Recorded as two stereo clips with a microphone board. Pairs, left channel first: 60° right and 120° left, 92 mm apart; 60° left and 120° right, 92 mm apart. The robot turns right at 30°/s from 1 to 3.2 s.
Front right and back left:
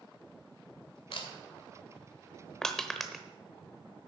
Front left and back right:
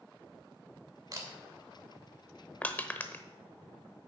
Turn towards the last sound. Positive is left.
turn(degrees=30)